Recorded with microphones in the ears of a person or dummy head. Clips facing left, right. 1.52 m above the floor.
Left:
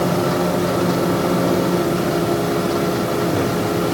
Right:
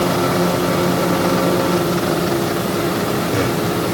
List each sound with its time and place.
Only background noise.